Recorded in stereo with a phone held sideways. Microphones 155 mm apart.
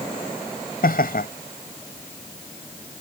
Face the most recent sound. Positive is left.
turn(degrees=75)  # may be behind; listen again after turning